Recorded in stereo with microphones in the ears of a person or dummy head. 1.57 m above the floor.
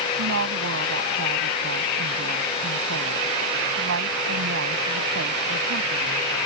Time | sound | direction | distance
0.2 | a woman speaking | 80° right | ?